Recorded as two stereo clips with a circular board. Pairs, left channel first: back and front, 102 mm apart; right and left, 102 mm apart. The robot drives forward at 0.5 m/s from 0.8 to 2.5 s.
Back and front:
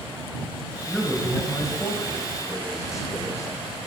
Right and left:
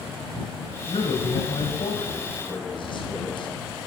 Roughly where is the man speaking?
Right.